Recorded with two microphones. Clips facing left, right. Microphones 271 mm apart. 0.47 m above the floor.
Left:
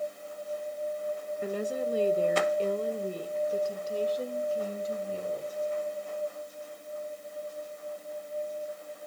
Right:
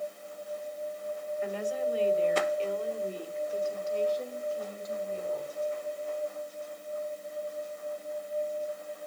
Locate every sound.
1.4 s a woman speaking: 45° left (ahead or behind), 1.4 m; by 5.5 s 35° left (ahead or behind), 3 m